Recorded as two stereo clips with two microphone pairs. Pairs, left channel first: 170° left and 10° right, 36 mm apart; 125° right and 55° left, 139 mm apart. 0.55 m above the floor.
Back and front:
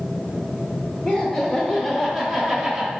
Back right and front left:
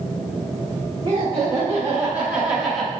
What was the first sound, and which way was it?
Laughter, 105° left.